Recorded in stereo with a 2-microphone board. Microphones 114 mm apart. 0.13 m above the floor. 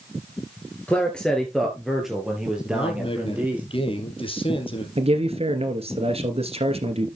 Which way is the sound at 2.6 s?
50° left (ahead or behind).